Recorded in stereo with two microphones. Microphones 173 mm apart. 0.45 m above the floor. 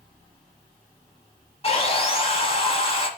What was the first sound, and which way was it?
Sawing, 40° left (ahead or behind).